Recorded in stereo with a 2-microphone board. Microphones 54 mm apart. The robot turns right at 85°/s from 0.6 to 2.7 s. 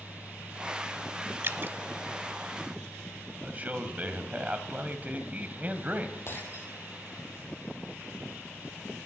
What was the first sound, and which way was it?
Dripping, 45° right (ahead or behind).